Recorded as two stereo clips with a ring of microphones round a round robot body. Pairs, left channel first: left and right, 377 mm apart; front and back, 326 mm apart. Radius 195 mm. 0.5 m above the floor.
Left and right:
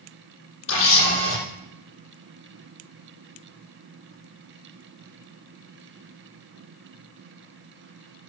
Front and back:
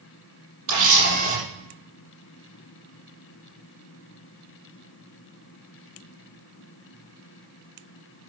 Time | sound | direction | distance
0.7 | a camera shutter | 150° left | 6.5 m